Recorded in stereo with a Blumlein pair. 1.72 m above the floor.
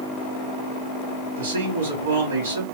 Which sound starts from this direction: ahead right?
A man speaking, at 1.4 s.